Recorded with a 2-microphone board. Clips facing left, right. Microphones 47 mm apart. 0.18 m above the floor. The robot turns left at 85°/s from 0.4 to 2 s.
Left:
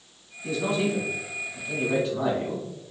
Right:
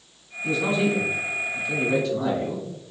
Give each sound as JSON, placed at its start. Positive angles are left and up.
{"t": 0.4, "sound": "a man speaking", "side_deg": -25, "distance_m": 1.1}